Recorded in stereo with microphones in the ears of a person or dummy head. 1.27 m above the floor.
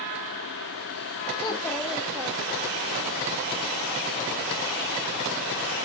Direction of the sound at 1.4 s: 25° left (ahead or behind).